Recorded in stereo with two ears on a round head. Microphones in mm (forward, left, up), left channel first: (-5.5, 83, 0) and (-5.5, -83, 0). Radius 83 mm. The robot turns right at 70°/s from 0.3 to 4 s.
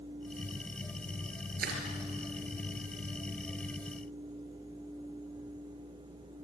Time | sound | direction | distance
1.6 | crushing | 55° right (ahead or behind) | 4 m